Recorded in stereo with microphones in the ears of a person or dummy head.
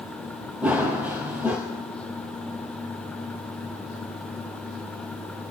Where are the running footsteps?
10° right (ahead or behind), 1.6 m.